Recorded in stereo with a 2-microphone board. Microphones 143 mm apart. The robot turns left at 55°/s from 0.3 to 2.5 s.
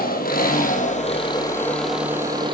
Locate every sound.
0.0 s an engine running: 90° left, 3 m; by 2.5 s 35° right, 3 m